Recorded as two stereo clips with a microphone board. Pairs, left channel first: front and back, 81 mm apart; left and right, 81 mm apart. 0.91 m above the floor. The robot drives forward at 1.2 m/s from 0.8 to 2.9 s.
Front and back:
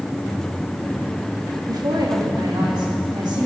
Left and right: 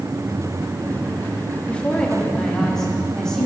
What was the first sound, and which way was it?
A woman speaking, 160° left.